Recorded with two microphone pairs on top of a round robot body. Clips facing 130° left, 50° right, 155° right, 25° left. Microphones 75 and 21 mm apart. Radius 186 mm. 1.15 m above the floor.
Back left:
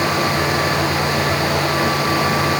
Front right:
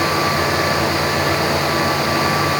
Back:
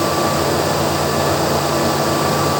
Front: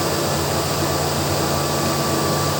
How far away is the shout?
No shout in this recording.